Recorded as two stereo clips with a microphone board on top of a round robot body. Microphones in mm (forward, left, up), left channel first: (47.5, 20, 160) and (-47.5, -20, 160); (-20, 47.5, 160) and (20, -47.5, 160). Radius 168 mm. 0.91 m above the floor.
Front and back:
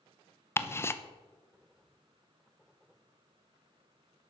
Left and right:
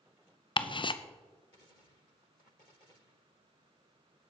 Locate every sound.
0.6 s ticking: 85° left, 0.7 m